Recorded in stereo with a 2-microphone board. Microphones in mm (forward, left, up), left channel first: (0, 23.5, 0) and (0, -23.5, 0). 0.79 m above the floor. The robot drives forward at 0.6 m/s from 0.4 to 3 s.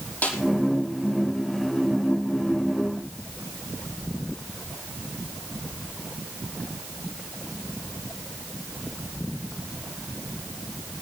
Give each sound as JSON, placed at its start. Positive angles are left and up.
{"t": 0.2, "sound": "a snare drum", "side_deg": 40, "distance_m": 5.0}